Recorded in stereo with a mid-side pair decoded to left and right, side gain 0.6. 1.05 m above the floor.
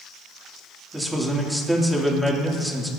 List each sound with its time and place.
0.9 s a man speaking: 5° right, 2.5 m